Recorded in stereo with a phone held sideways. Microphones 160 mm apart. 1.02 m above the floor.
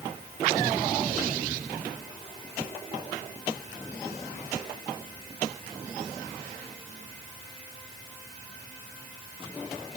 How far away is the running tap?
No running tap in this recording.